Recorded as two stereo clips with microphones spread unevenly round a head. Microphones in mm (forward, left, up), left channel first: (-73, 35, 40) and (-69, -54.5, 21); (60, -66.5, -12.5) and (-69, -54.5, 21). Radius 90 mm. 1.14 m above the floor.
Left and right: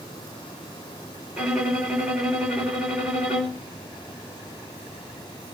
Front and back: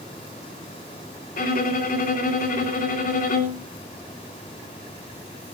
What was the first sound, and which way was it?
A violin, 5° right.